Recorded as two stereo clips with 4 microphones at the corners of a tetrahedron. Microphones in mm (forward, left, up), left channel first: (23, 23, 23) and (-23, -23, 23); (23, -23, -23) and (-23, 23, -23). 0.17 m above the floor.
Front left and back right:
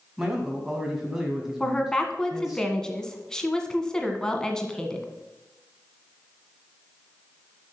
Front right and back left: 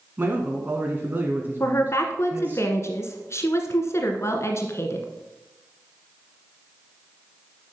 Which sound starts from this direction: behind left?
A man speaking, at 0.2 s.